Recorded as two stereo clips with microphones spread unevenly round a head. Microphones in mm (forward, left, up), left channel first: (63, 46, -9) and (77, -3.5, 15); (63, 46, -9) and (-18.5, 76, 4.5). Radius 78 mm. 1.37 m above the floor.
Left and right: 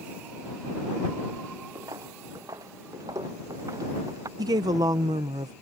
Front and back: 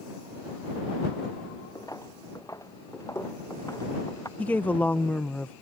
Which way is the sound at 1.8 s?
95° right.